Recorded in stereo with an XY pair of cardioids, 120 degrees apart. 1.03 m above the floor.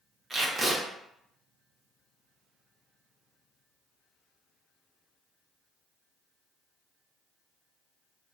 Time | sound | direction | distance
0.3 | tape being pulled | 25° right | 0.8 m